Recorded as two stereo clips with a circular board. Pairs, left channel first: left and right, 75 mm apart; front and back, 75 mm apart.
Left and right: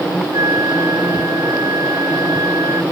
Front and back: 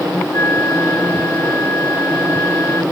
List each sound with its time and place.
0.3 s a flute: 55° right